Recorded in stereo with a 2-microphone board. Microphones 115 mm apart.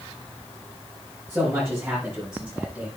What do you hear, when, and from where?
1.3 s a man speaking: 15° right (ahead or behind), 6.5 m